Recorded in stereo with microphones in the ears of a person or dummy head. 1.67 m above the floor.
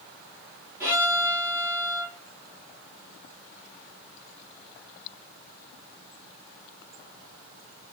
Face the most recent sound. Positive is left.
turn(degrees=-20)  # may be behind; listen again after turning